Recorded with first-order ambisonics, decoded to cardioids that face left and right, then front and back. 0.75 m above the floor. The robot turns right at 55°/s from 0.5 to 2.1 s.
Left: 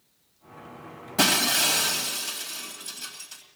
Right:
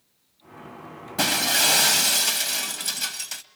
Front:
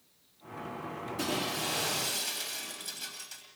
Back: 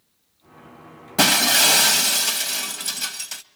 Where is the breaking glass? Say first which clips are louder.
Right 1 dB, back 17 dB; 175° left, 1.8 m; by 3.4 s 135° right, 1.8 m.